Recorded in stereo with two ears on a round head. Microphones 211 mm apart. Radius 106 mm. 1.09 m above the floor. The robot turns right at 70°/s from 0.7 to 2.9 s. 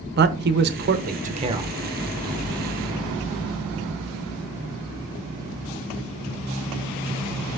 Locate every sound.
0.2 s a man speaking: 45° right (ahead or behind), 0.9 m; by 1.7 s 10° right (ahead or behind), 0.9 m